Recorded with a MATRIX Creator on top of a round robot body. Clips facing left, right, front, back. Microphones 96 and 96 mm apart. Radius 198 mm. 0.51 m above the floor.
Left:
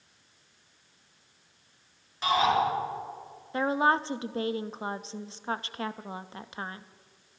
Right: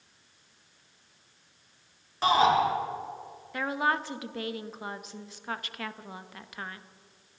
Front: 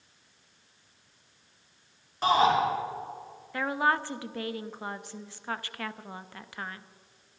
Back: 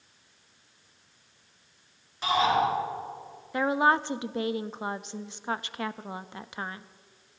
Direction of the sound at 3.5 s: 125° left.